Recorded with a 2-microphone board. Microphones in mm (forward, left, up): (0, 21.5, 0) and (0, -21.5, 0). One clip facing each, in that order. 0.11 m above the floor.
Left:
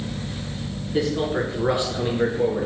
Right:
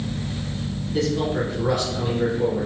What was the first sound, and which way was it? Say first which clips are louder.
A man speaking: even; 20° left (ahead or behind).